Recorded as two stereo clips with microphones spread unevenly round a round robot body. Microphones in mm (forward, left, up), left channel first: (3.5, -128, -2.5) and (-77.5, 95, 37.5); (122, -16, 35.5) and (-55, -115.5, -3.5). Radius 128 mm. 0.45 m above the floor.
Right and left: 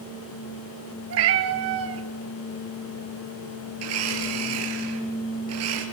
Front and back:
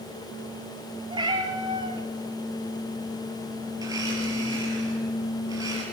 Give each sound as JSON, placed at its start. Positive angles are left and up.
{"t": 1.1, "sound": "a cat meowing", "azimuth_deg": 135, "distance_m": 1.9}
{"t": 3.8, "sound": "a blender", "azimuth_deg": 130, "distance_m": 4.5}